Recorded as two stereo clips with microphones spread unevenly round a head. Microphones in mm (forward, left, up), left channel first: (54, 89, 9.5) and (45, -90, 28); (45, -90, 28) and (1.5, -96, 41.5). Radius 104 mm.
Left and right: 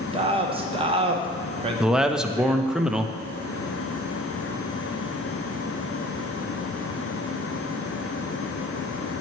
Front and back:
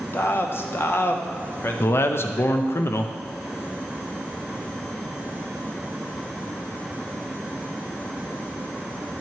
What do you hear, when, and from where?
0.1 s a man speaking: 35° right, 1.0 m
1.8 s a man speaking: 5° right, 0.6 m